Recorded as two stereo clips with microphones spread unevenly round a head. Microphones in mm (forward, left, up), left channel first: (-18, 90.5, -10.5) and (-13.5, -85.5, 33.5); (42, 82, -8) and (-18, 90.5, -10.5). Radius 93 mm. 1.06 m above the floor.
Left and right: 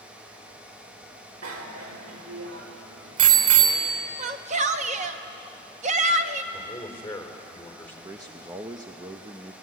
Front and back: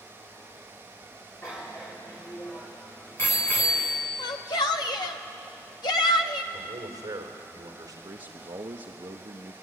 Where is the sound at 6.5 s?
170° left, 4 m.